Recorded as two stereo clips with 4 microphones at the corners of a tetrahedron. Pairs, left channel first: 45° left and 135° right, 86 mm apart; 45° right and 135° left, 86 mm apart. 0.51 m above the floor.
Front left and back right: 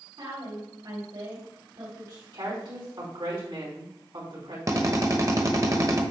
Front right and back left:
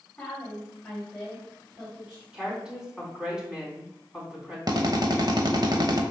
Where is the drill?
175° left, 1.0 m.